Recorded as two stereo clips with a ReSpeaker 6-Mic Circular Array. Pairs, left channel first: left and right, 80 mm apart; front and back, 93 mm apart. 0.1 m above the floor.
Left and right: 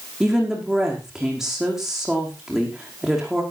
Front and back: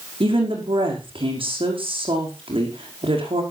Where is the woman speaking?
175° right, 5.5 m.